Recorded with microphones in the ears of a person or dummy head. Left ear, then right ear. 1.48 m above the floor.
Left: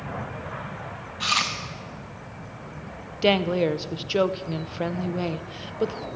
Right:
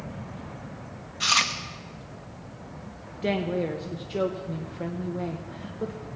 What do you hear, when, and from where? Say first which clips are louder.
1.2 s chewing: right 1 dB; 5° right (ahead or behind), 0.7 m
3.2 s a woman speaking: left 6 dB; 50° left (ahead or behind), 0.6 m